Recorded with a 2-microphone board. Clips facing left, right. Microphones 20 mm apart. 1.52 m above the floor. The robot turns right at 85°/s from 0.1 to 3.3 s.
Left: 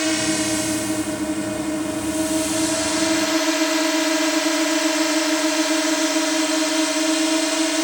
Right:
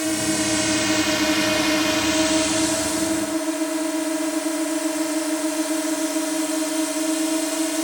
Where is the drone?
25° left (ahead or behind); by 7.8 s 30° left (ahead or behind).